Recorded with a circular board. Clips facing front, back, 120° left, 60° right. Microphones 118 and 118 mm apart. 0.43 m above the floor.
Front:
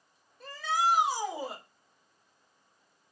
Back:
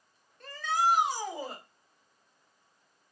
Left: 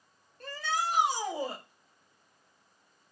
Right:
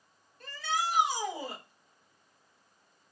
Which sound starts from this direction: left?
A shout, at 0.4 s.